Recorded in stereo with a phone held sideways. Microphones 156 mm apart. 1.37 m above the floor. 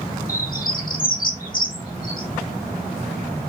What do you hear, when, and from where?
0.3 s a bird: 65° left (ahead or behind), 1.7 m